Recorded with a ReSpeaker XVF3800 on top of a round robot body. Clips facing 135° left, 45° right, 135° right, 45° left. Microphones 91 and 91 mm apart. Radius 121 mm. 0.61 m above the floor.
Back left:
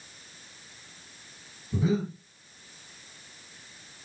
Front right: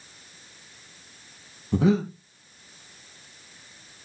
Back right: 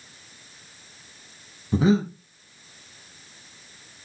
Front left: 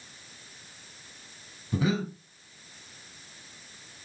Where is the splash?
I don't hear a splash.